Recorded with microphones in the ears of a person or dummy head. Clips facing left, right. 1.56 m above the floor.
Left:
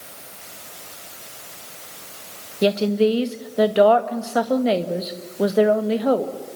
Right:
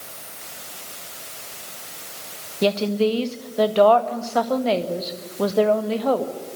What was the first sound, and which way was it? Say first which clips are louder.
A woman speaking: left 2 dB; 20° left (ahead or behind).